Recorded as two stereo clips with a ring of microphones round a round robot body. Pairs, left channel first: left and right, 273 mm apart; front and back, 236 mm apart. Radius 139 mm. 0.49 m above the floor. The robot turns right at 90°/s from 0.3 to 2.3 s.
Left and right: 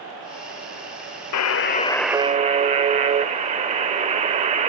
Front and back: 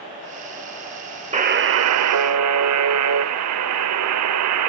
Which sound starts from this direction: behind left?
A buzzer, at 1.3 s.